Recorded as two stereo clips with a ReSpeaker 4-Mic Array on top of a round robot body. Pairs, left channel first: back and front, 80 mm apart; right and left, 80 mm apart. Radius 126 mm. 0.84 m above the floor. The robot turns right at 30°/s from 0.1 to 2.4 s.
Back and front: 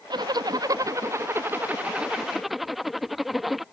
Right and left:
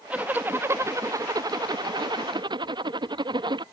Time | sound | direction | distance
0.1 | a zipper | 20° left | ?